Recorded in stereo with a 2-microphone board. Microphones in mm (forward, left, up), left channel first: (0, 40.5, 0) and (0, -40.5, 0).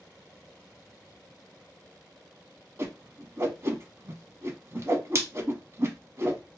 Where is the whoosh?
35° right (ahead or behind), 0.7 m.